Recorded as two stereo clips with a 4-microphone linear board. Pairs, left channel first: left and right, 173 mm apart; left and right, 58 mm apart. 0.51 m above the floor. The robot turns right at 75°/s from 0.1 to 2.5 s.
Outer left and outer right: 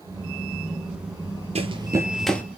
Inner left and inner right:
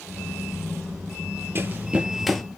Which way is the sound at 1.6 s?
35° right (ahead or behind).